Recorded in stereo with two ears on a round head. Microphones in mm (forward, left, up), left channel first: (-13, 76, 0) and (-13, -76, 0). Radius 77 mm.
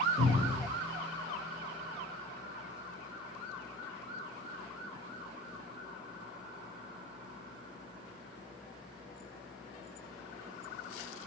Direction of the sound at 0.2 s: 40° left (ahead or behind).